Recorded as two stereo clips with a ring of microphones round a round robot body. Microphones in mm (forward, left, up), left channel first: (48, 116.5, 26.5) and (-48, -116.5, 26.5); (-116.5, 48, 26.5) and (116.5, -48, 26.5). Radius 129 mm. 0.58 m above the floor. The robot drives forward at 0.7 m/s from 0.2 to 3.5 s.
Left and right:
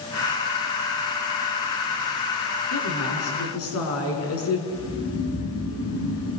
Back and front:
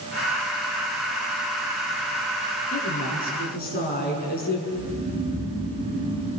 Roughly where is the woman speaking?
Left.